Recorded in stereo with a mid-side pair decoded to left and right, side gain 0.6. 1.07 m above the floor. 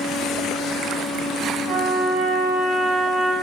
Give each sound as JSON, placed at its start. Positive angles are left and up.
{"t": 1.7, "sound": "a trumpet", "azimuth_deg": -60, "distance_m": 1.4}